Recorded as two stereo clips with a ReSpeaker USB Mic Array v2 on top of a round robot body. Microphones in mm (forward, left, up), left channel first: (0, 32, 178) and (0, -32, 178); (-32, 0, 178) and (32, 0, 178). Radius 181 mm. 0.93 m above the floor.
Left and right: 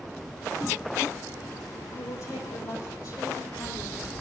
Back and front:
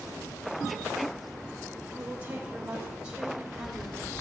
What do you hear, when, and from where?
1.9 s a woman speaking: 65° left, 5.5 m; by 4.1 s 85° left, 5 m